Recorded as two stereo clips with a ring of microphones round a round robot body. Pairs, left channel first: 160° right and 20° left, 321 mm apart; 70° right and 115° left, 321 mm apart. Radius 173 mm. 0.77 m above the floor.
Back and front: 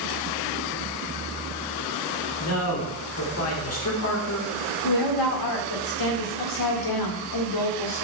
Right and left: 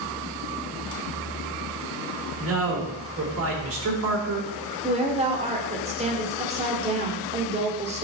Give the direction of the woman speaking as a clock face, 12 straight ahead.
6 o'clock.